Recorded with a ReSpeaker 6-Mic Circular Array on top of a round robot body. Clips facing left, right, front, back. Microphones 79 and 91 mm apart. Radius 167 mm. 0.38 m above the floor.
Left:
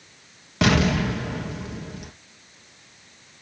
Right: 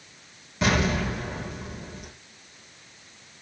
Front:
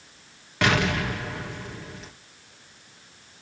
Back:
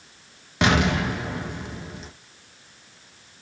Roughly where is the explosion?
Left.